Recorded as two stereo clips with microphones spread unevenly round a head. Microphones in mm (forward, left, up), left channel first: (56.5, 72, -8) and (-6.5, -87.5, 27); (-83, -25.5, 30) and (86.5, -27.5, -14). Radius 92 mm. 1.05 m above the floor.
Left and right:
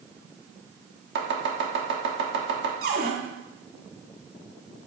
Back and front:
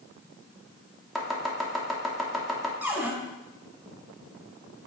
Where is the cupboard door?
85° right, 3 m.